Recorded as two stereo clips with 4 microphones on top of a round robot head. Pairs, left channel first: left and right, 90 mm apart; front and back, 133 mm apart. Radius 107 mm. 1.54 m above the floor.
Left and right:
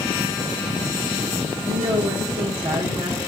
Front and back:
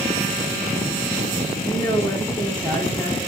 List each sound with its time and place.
1.7 s a woman speaking: 85° right, 2 m